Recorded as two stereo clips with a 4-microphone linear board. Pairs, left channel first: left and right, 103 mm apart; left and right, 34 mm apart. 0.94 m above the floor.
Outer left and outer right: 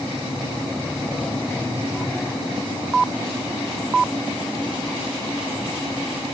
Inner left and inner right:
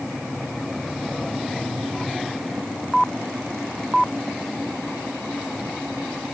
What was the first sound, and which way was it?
Only background noise.